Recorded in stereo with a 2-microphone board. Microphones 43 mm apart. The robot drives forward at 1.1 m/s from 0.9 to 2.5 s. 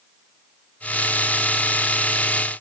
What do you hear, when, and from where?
Only background noise.